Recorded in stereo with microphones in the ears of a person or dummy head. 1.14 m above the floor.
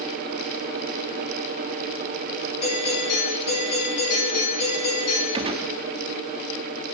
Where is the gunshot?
30° right (ahead or behind), 0.8 m.